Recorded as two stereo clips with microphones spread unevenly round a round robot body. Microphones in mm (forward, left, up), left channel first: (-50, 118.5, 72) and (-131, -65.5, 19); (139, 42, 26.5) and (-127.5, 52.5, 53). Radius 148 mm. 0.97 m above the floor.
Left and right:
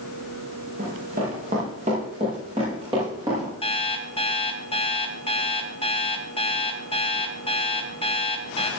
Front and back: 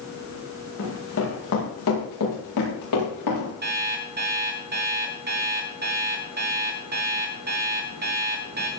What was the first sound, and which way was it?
Running footsteps, 50° right.